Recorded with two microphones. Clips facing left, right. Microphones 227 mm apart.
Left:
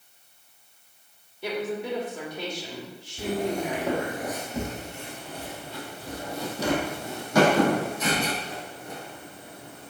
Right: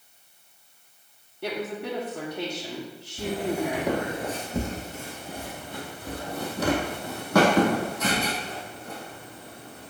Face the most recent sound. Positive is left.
turn(degrees=-70)  # may be behind; listen again after turning